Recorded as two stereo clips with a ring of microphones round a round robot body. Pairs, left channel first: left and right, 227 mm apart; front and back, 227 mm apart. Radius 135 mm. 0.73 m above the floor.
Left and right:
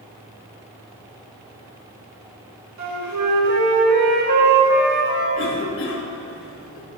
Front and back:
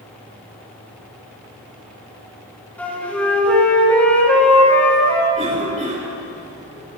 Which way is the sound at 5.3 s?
115° left.